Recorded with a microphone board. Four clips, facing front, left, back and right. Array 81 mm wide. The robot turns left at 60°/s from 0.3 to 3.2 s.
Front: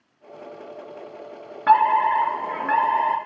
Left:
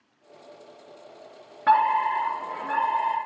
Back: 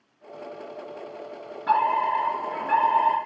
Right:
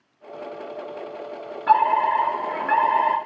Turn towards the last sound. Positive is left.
turn(degrees=-70)